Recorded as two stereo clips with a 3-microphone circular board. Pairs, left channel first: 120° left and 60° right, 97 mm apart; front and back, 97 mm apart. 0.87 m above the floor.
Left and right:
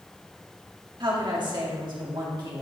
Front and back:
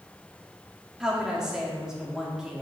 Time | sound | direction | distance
1.0 | a woman speaking | 95° right | 1.8 m